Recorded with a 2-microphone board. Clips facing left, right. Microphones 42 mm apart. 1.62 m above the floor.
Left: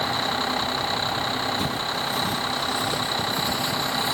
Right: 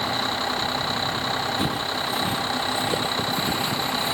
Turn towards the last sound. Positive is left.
turn(degrees=-30)  # may be behind; listen again after turning